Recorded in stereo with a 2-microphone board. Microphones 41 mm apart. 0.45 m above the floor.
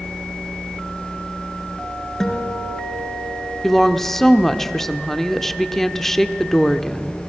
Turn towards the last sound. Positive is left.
turn(degrees=5)  # may be behind; listen again after turning